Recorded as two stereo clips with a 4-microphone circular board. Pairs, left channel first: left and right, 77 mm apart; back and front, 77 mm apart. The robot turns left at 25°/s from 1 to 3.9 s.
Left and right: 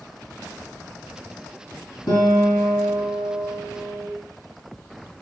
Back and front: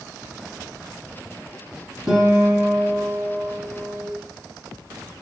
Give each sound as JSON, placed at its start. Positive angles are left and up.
{"t": 2.1, "sound": "a guitar", "azimuth_deg": 80, "distance_m": 0.9}